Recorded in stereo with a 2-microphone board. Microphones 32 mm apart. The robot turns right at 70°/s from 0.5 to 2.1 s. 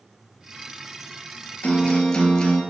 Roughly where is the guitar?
Behind left.